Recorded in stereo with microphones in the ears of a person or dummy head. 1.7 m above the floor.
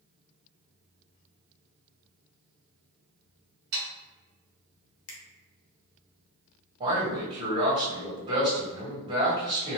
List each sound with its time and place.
3.7 s sawing: 60° right (ahead or behind), 1.2 m
5.1 s a finger snap: 85° left, 0.9 m
6.8 s a man speaking: 30° right (ahead or behind), 1.7 m